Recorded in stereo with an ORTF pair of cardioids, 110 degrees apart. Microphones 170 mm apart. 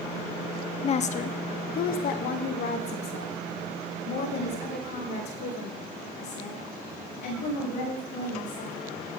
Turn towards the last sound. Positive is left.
turn(degrees=70)